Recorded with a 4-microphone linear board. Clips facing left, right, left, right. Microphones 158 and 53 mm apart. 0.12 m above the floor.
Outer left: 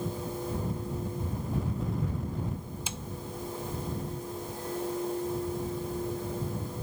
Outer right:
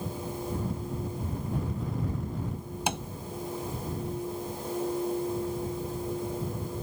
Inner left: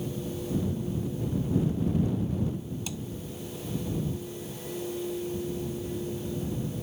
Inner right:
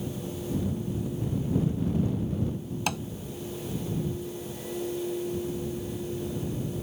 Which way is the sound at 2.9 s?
70° right (ahead or behind).